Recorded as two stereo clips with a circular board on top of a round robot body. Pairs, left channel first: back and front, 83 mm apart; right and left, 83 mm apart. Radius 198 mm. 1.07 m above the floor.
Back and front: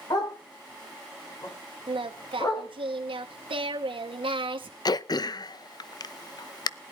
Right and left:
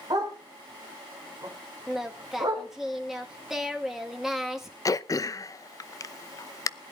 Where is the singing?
5° left, 1.4 m.